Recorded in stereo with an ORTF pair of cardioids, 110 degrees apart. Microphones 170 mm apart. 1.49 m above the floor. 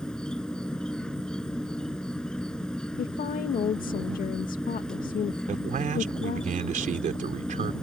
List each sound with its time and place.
0.0 s an insect: 5° left
3.0 s a woman speaking: 55° left
5.5 s a man speaking: 45° right